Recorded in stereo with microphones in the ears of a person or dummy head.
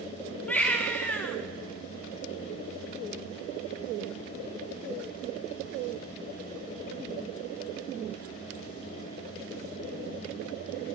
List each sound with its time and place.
0.5 s a baby crying: 5° left (ahead or behind), 0.5 m